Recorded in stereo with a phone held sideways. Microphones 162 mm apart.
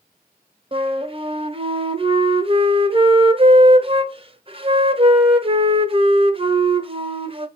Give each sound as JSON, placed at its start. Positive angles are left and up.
{"t": 0.7, "sound": "a flute", "side_deg": -35, "distance_m": 0.7}